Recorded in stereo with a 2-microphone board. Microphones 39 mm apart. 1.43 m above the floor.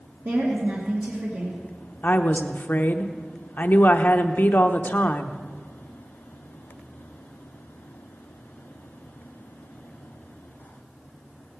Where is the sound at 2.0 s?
50° left (ahead or behind), 0.8 m.